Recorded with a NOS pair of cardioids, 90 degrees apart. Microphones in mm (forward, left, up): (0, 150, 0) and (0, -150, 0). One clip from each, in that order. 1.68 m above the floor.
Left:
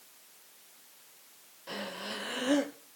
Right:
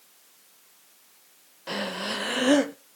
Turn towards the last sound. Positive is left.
turn(degrees=-45)